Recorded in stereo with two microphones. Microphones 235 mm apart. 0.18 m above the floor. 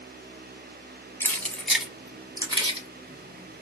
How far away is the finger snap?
I don't hear a finger snap.